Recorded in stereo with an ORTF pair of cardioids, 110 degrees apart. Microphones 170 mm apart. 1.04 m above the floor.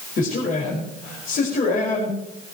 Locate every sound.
0.2 s a man speaking: 55° left, 5 m